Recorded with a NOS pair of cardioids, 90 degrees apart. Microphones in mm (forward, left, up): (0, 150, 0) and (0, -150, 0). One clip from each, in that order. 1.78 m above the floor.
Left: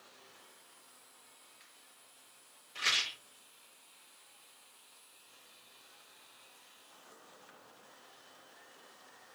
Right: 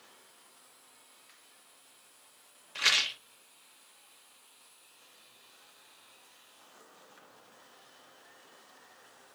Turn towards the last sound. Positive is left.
turn(degrees=-45)